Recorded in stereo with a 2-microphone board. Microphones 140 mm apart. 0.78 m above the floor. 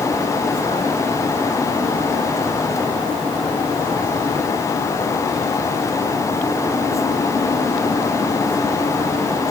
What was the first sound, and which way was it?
Only background noise.